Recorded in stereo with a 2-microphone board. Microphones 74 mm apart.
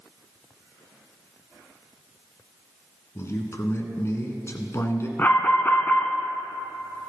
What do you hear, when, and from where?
3.1 s a man speaking: 40° left (ahead or behind), 1.5 m
5.2 s an alarm: 30° left (ahead or behind), 1.3 m